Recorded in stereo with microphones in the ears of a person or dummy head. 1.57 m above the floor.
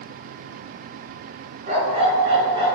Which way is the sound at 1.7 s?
40° right (ahead or behind).